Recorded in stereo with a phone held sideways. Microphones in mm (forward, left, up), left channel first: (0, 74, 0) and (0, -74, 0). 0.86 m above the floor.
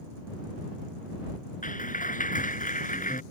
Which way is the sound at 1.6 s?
60° left (ahead or behind).